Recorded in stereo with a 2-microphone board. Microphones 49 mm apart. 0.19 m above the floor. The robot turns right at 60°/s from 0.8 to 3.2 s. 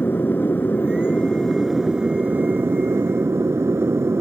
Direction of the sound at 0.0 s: 130° left.